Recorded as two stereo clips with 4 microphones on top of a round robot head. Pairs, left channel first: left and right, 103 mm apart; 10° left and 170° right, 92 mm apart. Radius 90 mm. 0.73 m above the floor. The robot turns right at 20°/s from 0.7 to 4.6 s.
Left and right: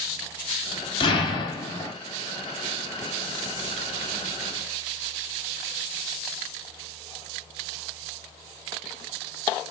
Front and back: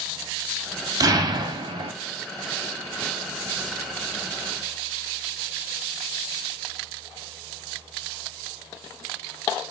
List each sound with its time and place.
1.0 s an explosion: 140° left, 0.6 m; by 1.9 s 160° left, 0.6 m